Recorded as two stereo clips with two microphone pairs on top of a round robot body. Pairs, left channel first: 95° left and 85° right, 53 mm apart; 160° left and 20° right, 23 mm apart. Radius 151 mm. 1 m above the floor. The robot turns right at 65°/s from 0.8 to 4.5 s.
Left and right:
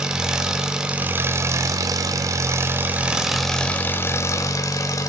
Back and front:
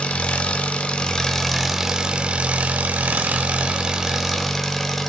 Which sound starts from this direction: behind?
An engine running, at 0.0 s.